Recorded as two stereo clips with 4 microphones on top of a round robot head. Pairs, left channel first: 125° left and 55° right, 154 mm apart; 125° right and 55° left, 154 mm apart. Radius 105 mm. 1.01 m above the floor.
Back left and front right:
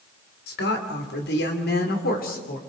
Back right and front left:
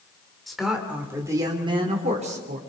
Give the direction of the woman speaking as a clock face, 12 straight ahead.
7 o'clock.